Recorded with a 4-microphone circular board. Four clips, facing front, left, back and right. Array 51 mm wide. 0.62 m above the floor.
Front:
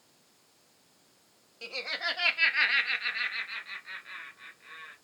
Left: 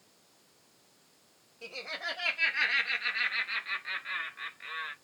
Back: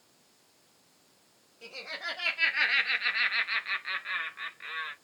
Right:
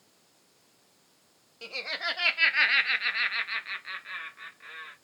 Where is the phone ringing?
No phone ringing in this recording.